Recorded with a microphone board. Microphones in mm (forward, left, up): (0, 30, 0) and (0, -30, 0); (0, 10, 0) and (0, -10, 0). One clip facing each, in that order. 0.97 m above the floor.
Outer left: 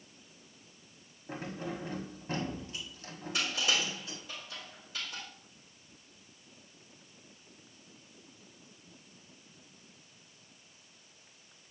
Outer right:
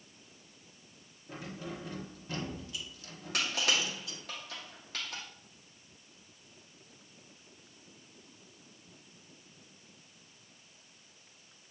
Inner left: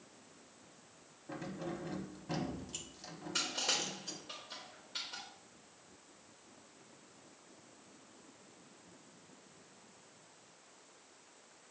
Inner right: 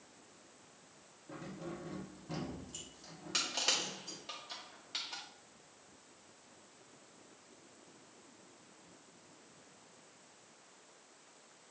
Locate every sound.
1.3 s keys jangling: 35° left (ahead or behind), 1.2 m
3.3 s crushing: 70° right (ahead or behind), 2 m